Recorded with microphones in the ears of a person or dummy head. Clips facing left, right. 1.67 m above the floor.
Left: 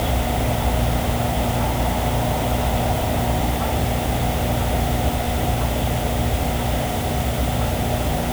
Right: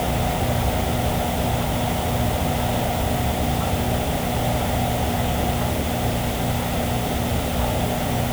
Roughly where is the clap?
I don't hear a clap.